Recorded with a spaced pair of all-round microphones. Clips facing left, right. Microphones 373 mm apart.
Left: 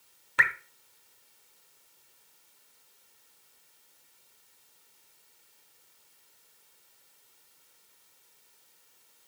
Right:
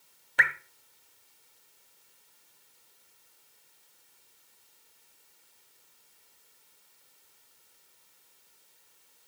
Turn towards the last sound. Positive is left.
turn(degrees=15)  # may be behind; listen again after turning